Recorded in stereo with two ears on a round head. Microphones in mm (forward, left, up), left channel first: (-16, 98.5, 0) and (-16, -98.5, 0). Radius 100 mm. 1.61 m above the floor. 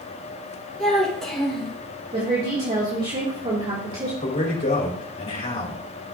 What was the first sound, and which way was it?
A child speaking, 5° left (ahead or behind).